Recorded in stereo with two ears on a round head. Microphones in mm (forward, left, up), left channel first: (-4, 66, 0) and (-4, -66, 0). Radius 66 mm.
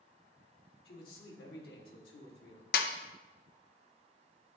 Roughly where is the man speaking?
Left.